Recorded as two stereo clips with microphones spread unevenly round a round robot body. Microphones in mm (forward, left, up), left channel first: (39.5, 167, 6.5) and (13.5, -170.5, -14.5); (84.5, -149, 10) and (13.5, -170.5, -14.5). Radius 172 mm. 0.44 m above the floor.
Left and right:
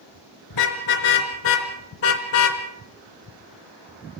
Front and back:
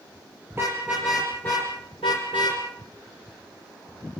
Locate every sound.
0.5 s a car horn: 115° left, 3.5 m; by 2.6 s 85° left, 2.5 m